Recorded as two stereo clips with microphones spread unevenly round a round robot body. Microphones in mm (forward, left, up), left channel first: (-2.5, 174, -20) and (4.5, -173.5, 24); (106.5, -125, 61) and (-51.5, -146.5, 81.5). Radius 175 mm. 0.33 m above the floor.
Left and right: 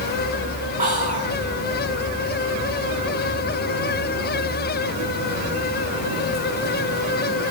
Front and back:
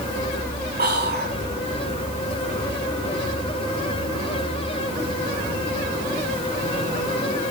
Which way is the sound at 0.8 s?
160° right.